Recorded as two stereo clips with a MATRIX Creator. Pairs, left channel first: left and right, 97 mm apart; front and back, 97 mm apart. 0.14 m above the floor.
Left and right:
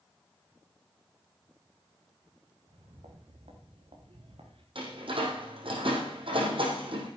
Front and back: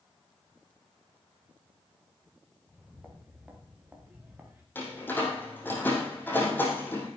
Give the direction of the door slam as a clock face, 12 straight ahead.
2 o'clock.